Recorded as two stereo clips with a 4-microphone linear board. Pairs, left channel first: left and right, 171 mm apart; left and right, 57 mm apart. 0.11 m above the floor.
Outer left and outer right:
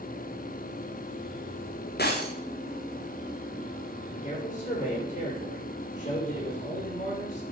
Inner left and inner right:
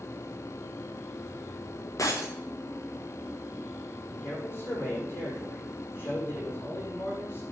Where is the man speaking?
45° left (ahead or behind), 6.5 m.